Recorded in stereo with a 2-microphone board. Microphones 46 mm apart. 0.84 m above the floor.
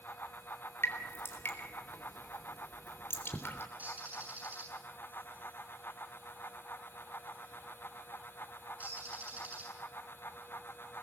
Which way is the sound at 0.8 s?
65° left (ahead or behind).